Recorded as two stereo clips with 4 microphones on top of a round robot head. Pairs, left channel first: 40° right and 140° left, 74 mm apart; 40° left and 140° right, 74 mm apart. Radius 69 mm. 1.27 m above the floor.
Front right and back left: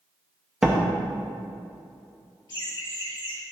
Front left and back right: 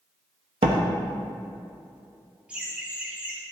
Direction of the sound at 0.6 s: 135° right.